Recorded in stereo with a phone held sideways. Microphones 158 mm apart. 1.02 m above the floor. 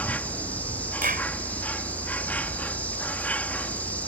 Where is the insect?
10° left (ahead or behind).